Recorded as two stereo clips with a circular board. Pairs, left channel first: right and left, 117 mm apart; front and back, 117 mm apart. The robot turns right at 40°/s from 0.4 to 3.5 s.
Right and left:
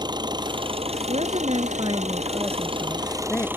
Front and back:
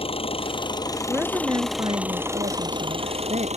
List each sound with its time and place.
0.0 s an engine running: 35° left; by 3.6 s 160° left
1.1 s a woman speaking: 105° left; by 3.5 s 160° right